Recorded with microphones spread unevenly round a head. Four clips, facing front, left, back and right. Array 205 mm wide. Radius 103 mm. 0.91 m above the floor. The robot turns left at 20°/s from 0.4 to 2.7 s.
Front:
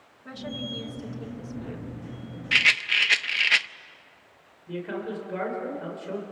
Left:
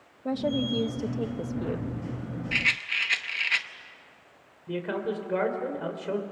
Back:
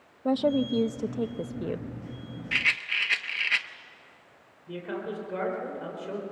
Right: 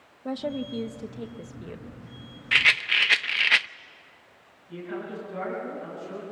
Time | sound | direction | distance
0.2 | a woman speaking | 170° left | 0.6 m
2.5 | a rattle | 55° right | 0.5 m
4.7 | a man speaking | 95° left | 4 m